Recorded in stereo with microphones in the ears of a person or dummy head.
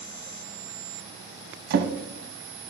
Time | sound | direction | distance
1.7 | a drawer | 55° right (ahead or behind) | 1.0 m